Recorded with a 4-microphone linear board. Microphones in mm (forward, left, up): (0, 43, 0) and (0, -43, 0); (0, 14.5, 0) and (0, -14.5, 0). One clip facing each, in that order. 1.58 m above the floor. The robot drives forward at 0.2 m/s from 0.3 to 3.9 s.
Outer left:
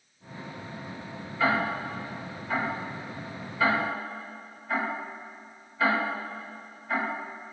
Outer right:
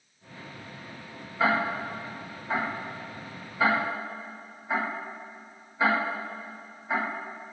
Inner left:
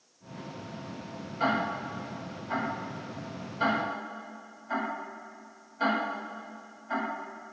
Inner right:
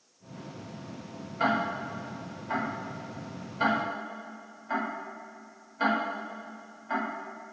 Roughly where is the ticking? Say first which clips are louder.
Outer right 1 dB, inner right 1 dB; right.